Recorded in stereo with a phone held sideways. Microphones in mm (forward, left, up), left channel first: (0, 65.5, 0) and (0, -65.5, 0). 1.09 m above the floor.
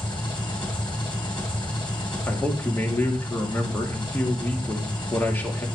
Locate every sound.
0.0 s an engine running: 35° left (ahead or behind), 3 m
2.3 s a man speaking: 15° left (ahead or behind), 2 m